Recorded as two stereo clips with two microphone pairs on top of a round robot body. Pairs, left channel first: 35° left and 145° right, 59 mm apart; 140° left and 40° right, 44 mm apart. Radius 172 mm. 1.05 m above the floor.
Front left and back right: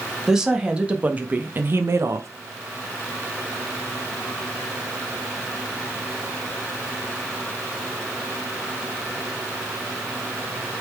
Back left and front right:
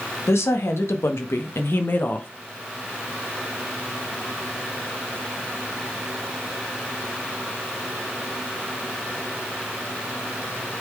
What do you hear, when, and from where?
0.3 s a woman speaking: 135° left, 2 m; by 2.3 s 170° right, 1.3 m